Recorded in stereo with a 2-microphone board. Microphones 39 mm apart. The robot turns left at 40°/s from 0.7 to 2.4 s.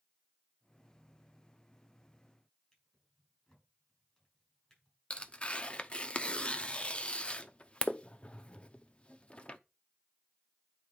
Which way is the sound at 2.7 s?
15° left (ahead or behind).